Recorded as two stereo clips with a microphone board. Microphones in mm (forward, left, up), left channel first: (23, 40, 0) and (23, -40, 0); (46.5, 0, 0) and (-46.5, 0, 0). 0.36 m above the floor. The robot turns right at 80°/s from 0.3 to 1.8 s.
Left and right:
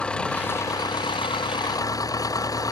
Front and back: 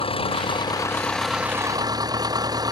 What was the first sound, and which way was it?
An engine running, 15° left.